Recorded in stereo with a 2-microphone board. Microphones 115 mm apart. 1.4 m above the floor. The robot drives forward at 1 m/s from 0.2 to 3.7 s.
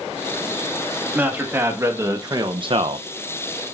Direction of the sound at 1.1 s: 20° right (ahead or behind).